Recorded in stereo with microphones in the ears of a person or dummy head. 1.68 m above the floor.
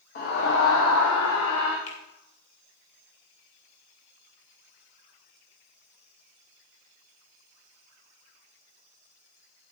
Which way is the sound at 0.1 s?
50° left (ahead or behind).